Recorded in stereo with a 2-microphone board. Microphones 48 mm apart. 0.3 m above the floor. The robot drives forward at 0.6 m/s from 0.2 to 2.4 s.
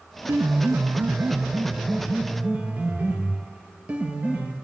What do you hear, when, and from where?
0.3 s a piano: 80° right, 0.8 m; by 4.5 s 30° right (ahead or behind), 1.6 m